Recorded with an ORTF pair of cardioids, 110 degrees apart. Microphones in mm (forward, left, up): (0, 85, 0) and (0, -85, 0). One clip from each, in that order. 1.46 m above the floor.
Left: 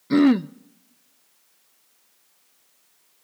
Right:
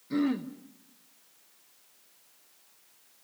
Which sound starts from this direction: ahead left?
Throat clearing, at 0.1 s.